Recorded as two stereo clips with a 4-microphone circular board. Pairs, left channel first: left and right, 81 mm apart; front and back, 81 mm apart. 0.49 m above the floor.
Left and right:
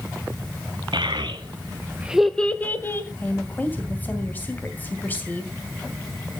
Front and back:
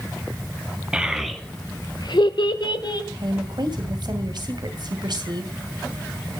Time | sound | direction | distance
0.9 | a child speaking | 100° right | 1.6 m
3.2 | a woman speaking | 155° left | 2.5 m